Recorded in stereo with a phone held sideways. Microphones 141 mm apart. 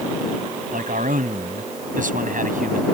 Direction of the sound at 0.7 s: 70° right (ahead or behind).